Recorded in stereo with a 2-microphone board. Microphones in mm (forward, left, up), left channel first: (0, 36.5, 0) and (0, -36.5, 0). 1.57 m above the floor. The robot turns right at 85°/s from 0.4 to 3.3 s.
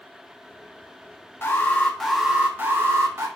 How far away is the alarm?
About 0.9 m.